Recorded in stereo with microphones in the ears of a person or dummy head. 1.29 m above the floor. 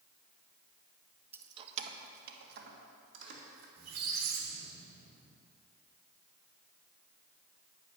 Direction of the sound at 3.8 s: 60° right (ahead or behind).